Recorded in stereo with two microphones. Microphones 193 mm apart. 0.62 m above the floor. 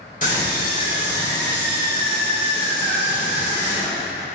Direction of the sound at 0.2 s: 45° left (ahead or behind).